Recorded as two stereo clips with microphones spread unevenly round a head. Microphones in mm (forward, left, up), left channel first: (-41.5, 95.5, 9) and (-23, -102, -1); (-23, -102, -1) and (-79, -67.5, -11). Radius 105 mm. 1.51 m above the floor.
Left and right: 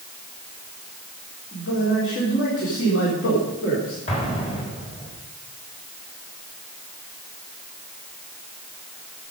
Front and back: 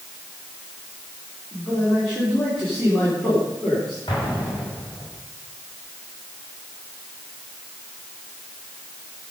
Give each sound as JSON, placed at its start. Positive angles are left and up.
{"t": 1.5, "sound": "a man speaking", "azimuth_deg": 55, "distance_m": 4.0}
{"t": 4.1, "sound": "an explosion", "azimuth_deg": 30, "distance_m": 4.0}